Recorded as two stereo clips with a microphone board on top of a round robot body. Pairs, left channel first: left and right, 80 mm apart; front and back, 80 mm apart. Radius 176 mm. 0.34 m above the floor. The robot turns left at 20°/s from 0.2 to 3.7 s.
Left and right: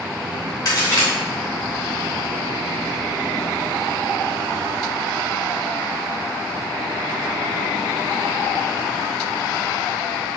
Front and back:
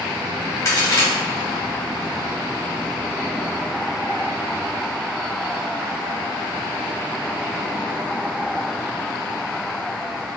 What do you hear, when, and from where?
0.7 s a crack: 45° left, 1.8 m; by 1.1 s 35° left, 1.8 m